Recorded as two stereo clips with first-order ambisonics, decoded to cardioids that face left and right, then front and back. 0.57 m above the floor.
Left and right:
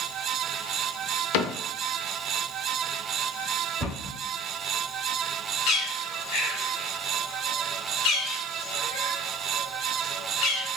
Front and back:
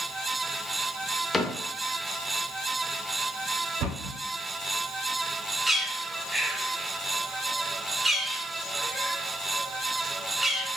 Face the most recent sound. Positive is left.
turn(degrees=100)